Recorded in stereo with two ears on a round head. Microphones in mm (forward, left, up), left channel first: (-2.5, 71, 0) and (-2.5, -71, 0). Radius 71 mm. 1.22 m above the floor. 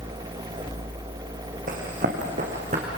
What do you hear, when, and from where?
1.7 s running footsteps: 55° right (ahead or behind), 4 m; by 2.9 s 50° right (ahead or behind), 4.5 m